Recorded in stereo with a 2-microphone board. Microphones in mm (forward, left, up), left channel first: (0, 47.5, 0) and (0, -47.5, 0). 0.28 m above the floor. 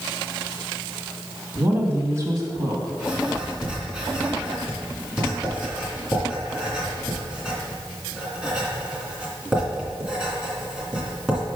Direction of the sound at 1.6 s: 15° right (ahead or behind).